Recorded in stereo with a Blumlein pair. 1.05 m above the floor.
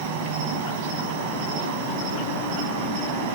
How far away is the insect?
About 3 m.